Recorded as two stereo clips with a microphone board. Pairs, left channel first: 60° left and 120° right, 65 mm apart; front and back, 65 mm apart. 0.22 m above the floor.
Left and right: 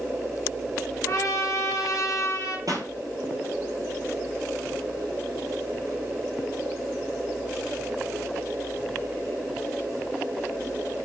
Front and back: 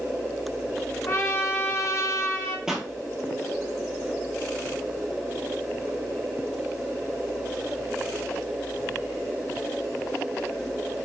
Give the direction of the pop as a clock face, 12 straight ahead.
3 o'clock.